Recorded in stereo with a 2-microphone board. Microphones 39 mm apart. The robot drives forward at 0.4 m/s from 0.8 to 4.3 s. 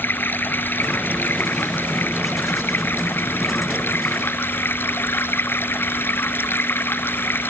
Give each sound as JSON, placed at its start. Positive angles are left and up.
{"t": 0.0, "sound": "running water", "side_deg": 70}